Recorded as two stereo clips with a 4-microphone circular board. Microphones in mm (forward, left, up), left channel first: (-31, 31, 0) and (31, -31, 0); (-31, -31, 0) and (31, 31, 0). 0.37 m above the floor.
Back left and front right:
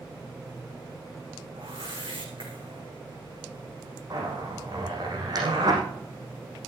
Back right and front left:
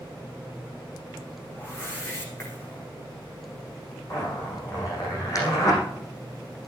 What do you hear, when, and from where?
1.6 s a whoosh: 65° right, 4.5 m
4.1 s a zipper: 90° right, 6.5 m